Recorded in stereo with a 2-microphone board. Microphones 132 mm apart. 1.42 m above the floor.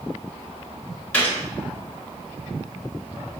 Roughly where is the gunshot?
Centre.